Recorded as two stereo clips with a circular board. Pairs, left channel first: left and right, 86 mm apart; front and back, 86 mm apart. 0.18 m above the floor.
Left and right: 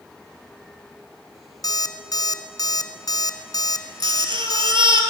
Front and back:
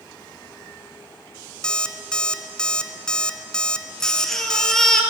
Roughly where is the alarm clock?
Left.